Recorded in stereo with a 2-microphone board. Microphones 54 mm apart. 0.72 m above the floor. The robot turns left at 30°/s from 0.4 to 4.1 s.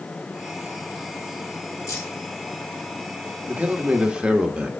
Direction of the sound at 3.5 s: 25° right (ahead or behind).